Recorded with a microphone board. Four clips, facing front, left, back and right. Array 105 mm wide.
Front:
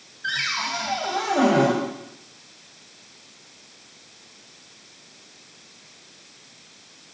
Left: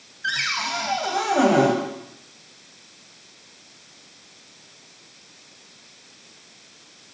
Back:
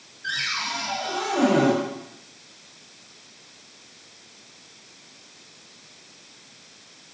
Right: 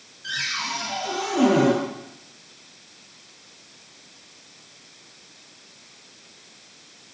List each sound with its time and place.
0.2 s a cupboard door: 60° left, 2.5 m